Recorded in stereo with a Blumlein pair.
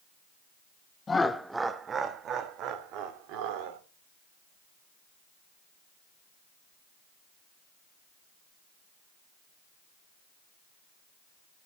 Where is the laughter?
15° left, 0.9 m; by 3.8 s 45° right, 3 m.